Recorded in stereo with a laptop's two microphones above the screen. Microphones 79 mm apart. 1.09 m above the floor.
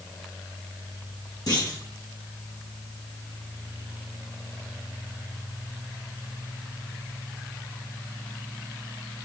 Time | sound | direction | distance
1.5 | a clunk | 55° left (ahead or behind) | 5.5 m